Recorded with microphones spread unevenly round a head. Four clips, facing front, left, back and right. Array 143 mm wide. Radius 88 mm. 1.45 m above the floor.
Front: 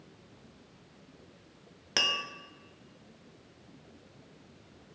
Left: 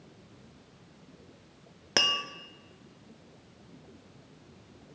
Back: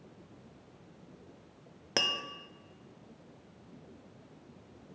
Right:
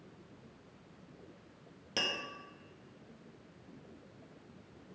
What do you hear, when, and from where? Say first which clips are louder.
2.0 s tapping: left 7 dB, front 1 dB; 75° left, 0.6 m